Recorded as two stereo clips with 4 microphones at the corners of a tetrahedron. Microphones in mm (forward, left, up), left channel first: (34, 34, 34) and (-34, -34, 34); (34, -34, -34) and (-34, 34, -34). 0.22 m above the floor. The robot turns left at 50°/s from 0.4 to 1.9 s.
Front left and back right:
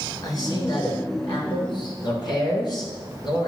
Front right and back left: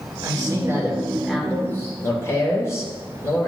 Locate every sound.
0.2 s a man speaking: 90° left, 2.5 m; by 3.5 s 15° left, 2.5 m